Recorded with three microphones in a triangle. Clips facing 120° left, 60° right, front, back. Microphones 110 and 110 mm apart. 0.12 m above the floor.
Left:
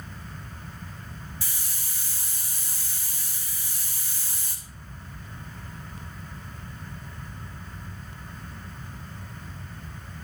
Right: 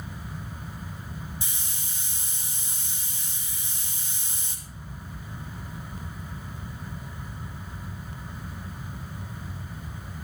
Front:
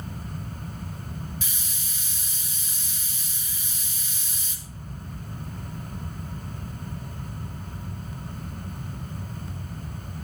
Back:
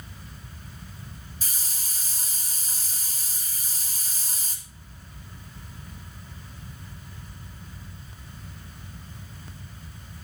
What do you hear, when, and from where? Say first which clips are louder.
1.4 s a hiss: right 1 dB, front 3 dB; 130° right, 2.5 m